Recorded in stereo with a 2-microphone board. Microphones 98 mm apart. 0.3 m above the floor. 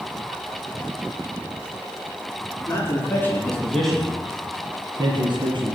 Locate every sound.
2.7 s a man speaking: 30° left (ahead or behind), 3 m; by 5.8 s 60° right (ahead or behind), 2.5 m